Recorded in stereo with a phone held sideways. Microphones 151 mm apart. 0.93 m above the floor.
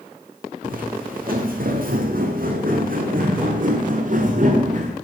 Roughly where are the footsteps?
Right.